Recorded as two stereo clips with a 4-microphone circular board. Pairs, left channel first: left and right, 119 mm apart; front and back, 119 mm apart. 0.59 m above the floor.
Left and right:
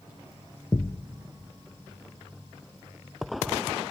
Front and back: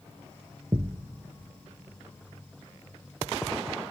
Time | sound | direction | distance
0.7 | a thud | 135° left | 0.7 m